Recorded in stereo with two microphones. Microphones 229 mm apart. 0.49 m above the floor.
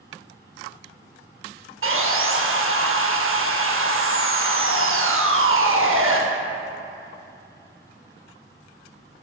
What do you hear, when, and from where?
1.8 s sawing: 65° right (ahead or behind), 0.6 m